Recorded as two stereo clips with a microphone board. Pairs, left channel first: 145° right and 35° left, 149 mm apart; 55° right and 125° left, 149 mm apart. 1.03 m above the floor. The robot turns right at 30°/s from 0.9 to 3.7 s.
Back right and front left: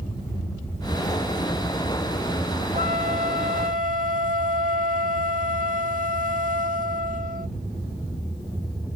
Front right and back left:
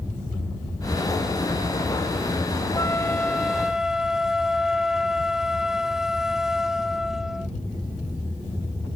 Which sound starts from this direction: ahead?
A flute, at 2.7 s.